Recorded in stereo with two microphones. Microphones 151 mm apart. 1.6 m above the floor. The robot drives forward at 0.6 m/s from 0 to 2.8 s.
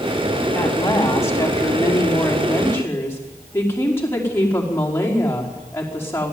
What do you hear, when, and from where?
0.6 s a woman speaking: 20° left (ahead or behind), 3.5 m; by 6.3 s 15° left (ahead or behind), 5 m